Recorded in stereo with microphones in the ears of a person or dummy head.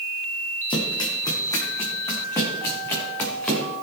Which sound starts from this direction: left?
Running footsteps, at 0.7 s.